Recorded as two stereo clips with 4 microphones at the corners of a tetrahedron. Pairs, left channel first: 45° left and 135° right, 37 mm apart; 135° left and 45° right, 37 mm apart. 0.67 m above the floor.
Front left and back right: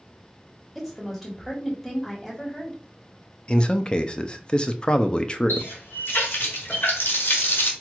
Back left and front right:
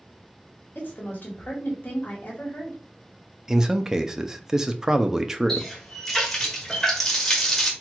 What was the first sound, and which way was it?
A woman speaking, 135° left.